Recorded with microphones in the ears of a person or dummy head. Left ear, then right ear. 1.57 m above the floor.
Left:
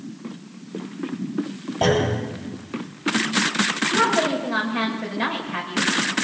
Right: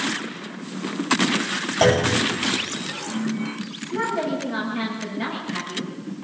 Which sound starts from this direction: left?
A woman speaking, at 3.9 s.